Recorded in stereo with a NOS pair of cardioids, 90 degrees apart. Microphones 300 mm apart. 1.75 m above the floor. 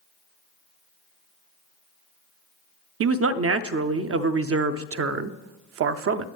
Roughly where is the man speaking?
Ahead right.